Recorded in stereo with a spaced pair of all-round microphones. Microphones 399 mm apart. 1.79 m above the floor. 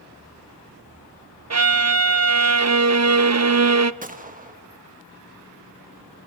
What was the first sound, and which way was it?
A violin, 40° right (ahead or behind).